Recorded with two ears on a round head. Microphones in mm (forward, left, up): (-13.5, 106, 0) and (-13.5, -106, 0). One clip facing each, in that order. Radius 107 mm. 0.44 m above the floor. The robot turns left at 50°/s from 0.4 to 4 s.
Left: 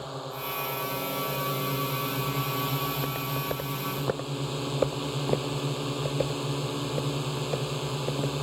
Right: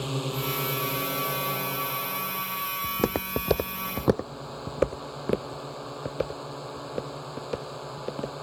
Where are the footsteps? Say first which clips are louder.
Right 5 dB; 70° right (ahead or behind); by 8.3 s 5° right (ahead or behind).